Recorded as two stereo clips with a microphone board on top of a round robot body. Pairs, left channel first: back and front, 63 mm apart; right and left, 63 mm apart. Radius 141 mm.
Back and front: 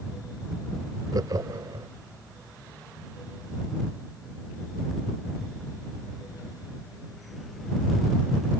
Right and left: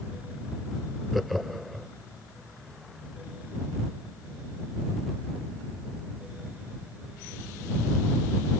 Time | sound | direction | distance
1.1 | laughter | straight ahead | ?